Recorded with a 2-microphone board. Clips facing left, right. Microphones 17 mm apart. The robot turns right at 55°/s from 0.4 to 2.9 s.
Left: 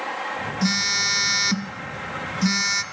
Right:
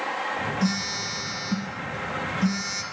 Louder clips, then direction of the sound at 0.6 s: Left 5 dB; 25° left.